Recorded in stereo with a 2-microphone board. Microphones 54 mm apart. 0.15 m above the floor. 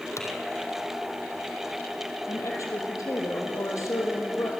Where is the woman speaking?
75° left (ahead or behind), 5 m.